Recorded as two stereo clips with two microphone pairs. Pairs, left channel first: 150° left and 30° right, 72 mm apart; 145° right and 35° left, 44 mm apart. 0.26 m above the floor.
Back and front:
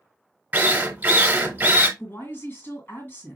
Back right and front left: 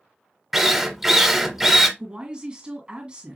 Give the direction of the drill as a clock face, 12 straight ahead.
1 o'clock.